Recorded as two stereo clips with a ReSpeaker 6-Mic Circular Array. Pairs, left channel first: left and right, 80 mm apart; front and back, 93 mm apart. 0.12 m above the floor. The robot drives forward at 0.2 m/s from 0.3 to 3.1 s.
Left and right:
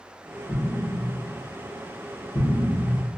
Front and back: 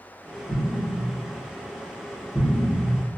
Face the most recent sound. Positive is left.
turn(degrees=85)